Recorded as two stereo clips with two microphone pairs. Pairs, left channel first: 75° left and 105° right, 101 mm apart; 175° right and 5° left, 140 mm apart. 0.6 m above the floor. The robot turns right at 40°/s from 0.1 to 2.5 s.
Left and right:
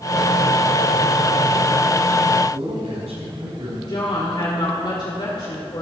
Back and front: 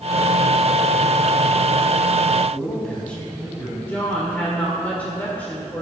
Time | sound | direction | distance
2.5 | a man speaking | 90° right | 4.5 m
3.9 | a woman speaking | 110° left | 1.9 m